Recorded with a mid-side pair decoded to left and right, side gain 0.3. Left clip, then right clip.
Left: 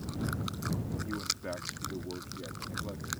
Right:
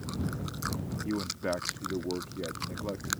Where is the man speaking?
70° right.